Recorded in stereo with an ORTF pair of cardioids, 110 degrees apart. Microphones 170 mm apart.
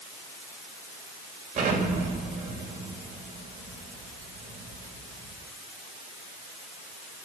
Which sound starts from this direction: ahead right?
An explosion, at 1.6 s.